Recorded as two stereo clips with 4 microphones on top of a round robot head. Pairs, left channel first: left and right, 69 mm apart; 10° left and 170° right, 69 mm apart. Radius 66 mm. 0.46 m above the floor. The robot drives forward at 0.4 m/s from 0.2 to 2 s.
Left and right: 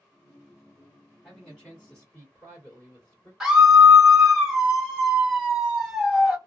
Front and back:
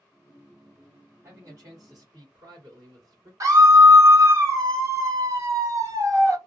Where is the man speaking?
170° left, 1.8 m.